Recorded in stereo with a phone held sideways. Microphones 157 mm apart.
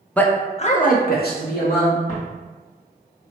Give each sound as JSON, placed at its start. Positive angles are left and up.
{"t": 0.2, "sound": "a man speaking", "side_deg": 10, "distance_m": 0.6}
{"t": 2.1, "sound": "footsteps", "side_deg": 55, "distance_m": 1.9}